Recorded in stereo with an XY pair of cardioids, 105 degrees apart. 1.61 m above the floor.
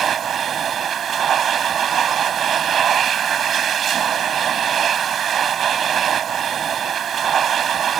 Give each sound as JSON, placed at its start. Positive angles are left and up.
{"t": 0.0, "sound": "a machine running", "azimuth_deg": -55}